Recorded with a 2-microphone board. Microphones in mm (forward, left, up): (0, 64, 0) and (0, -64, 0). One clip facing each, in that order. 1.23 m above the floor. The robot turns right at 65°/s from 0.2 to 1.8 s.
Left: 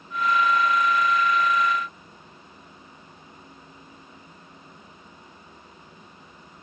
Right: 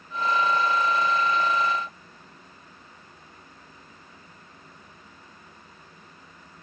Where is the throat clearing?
I don't hear throat clearing.